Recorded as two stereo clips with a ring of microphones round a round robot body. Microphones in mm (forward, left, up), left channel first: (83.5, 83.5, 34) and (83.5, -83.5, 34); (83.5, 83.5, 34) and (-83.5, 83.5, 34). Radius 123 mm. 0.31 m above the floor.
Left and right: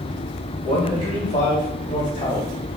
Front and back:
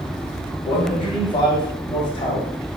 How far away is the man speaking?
About 2.0 m.